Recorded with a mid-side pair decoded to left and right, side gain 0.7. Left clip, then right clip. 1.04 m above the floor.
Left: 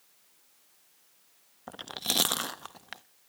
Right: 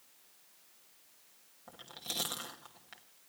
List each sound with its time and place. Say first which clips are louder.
1.7 s chewing: left 10 dB; 50° left, 1.1 m